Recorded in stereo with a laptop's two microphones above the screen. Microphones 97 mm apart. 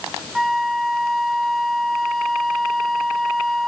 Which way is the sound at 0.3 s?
Centre (ahead or behind).